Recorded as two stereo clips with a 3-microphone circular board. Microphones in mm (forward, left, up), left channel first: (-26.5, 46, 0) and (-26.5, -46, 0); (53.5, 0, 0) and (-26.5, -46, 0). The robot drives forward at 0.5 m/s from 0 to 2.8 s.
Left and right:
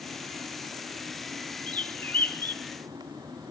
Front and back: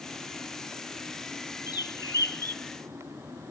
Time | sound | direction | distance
1.7 | a bird | 20° left | 0.8 m